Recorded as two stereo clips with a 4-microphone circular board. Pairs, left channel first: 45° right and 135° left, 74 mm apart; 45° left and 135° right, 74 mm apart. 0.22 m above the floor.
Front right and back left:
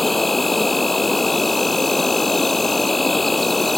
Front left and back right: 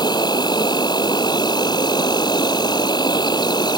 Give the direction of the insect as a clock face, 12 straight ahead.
11 o'clock.